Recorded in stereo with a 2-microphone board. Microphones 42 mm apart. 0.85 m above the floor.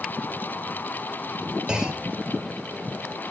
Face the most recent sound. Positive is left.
turn(degrees=-20)  # may be behind; listen again after turning